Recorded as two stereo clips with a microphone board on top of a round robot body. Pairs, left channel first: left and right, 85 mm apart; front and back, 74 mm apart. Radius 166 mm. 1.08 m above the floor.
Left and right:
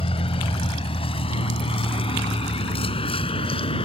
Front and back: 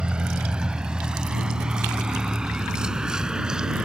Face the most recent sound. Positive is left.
turn(degrees=100)